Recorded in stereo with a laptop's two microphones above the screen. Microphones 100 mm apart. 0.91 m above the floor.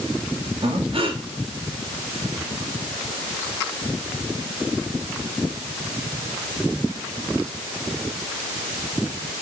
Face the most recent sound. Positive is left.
turn(degrees=-65)  # may be behind; listen again after turning